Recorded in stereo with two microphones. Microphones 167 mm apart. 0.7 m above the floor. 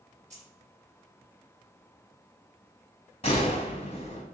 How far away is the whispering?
I don't hear whispering.